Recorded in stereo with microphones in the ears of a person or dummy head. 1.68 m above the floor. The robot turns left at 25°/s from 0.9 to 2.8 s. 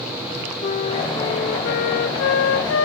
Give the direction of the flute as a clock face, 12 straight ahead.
7 o'clock.